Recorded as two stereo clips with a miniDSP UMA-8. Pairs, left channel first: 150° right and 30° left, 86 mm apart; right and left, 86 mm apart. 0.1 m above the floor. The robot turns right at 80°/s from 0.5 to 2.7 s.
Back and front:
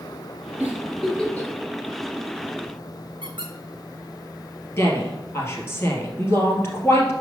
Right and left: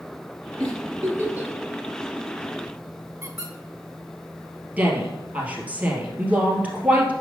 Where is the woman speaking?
160° left, 2.5 m.